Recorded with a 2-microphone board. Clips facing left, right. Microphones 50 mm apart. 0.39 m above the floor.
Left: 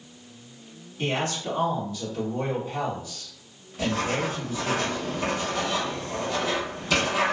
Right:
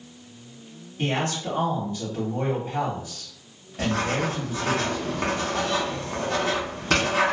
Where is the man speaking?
35° right (ahead or behind), 1.9 m.